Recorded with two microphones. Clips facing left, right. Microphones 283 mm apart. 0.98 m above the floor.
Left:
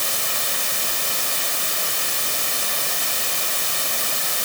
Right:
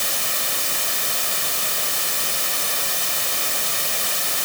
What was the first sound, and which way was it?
Only background noise.